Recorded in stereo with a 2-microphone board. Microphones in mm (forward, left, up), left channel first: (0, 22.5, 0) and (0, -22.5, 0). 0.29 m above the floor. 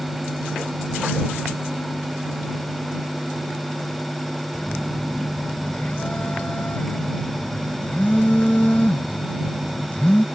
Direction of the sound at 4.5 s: 40° left (ahead or behind).